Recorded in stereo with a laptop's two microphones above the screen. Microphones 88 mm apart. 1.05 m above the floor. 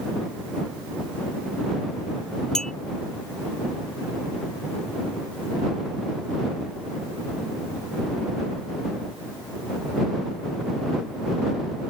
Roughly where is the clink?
Centre.